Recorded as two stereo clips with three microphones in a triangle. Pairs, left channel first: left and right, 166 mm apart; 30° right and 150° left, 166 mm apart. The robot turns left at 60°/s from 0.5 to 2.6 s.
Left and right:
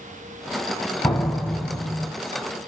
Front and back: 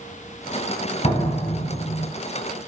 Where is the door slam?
10° left, 1.2 m; by 2.1 s 55° right, 1.2 m.